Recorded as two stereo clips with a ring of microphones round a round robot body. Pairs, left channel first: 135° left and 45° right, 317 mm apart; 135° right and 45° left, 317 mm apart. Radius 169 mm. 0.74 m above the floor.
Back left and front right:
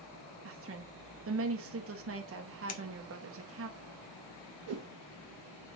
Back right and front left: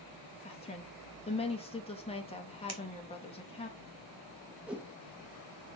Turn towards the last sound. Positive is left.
turn(degrees=-40)